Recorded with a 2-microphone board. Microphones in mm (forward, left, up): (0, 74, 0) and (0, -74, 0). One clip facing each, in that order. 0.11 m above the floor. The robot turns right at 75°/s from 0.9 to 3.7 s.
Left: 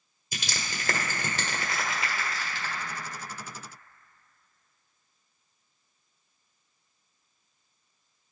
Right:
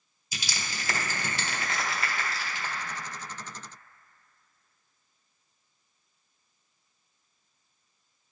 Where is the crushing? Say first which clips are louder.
Left 1 dB; 55° left (ahead or behind), 1.5 m; by 2.7 s 30° right (ahead or behind), 1.5 m.